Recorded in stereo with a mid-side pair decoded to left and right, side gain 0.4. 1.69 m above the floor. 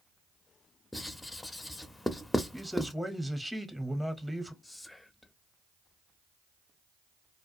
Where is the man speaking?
Straight ahead, 0.8 m.